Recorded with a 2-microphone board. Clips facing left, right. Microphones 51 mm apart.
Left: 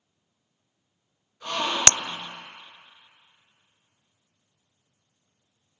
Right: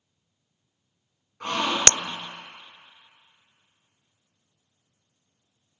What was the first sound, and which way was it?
A gasp, 65° right (ahead or behind).